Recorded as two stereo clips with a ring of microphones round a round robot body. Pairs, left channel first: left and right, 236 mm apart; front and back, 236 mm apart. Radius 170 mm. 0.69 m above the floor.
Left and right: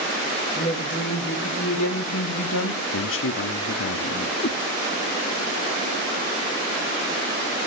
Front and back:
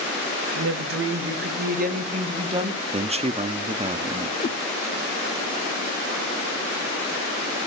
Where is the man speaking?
120° left, 1.1 m.